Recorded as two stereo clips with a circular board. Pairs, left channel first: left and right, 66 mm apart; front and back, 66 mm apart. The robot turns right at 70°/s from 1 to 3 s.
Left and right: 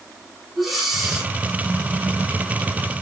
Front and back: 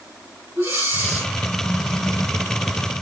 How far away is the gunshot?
I don't hear a gunshot.